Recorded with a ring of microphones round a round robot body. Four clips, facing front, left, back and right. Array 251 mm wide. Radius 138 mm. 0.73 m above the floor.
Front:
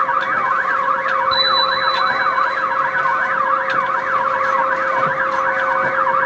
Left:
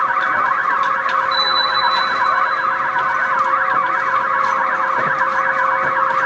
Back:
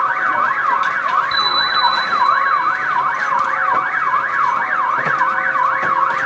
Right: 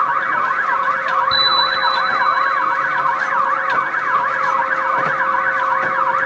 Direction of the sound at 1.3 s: 75° right.